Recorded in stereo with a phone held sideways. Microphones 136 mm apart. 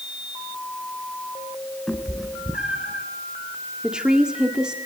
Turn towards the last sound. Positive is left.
turn(degrees=-5)  # may be behind; listen again after turning